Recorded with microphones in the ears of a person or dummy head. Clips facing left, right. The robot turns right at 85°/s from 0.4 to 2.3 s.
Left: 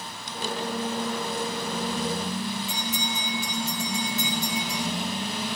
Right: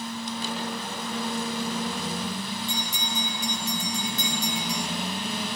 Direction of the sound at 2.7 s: 5° left (ahead or behind).